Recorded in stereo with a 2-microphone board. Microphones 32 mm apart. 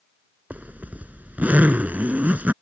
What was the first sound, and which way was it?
A zipper, 60° right (ahead or behind).